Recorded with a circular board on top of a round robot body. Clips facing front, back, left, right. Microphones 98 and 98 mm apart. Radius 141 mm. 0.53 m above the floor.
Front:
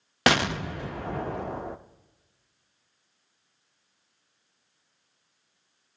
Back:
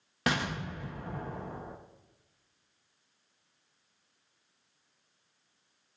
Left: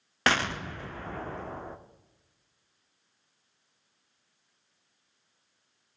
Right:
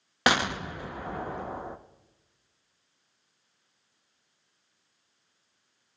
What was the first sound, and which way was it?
An explosion, 15° right.